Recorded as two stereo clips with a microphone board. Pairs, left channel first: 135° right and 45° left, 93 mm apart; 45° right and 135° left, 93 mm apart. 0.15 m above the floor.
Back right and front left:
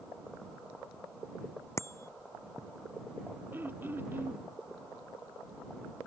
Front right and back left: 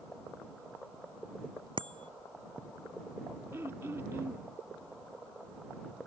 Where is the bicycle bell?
165° left.